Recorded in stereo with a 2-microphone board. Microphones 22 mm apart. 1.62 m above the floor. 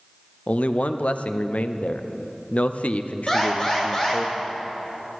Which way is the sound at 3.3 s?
30° left (ahead or behind).